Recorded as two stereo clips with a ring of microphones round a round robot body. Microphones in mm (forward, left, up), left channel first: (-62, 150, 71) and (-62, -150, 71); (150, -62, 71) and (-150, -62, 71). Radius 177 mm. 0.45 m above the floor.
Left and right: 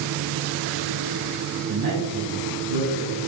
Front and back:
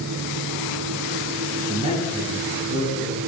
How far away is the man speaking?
About 5 m.